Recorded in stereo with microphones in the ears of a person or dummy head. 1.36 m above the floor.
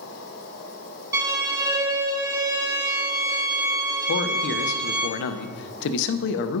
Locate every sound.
0.0 s an insect: 65° left (ahead or behind), 2 m
1.1 s a violin: 15° right (ahead or behind), 1.9 m
4.1 s a man speaking: 65° left (ahead or behind), 0.6 m